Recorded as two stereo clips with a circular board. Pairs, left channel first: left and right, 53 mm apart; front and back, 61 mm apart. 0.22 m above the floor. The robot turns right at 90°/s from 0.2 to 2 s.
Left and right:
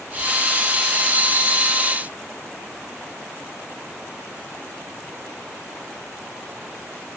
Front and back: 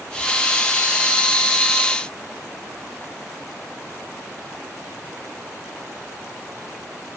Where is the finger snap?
No finger snap in this recording.